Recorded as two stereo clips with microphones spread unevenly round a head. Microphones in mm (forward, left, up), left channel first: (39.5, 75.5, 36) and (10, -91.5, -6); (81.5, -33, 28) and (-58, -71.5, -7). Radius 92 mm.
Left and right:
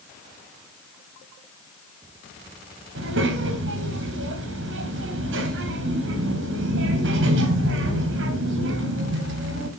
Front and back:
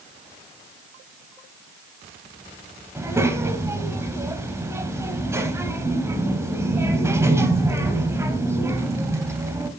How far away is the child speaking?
About 3 m.